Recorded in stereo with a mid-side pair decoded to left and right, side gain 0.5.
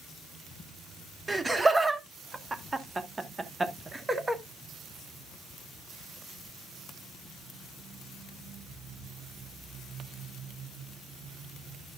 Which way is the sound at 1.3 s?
20° right.